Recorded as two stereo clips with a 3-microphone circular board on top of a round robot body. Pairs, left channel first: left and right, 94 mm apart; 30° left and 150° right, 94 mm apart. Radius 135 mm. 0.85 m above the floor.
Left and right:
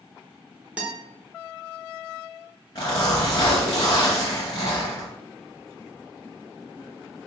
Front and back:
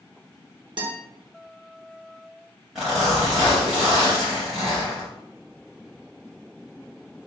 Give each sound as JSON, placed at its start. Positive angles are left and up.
{"t": 0.8, "sound": "a guitar", "azimuth_deg": -165, "distance_m": 1.0}
{"t": 2.8, "sound": "a zipper", "azimuth_deg": 125, "distance_m": 0.7}